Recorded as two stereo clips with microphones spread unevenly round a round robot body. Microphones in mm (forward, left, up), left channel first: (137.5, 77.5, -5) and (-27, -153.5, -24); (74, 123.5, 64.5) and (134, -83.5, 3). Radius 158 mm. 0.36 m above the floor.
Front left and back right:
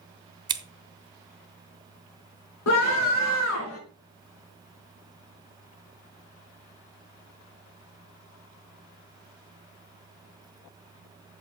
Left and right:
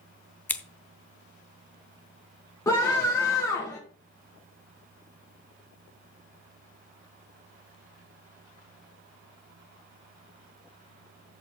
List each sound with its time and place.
0.5 s scissors: 135° right, 0.8 m
2.7 s a scream: 25° left, 5.5 m